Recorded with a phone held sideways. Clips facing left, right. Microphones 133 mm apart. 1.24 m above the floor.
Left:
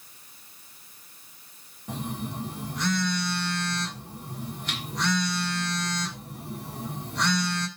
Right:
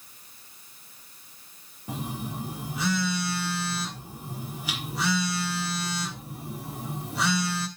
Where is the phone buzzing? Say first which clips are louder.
Left 1 dB; 5° right (ahead or behind), 1.2 m.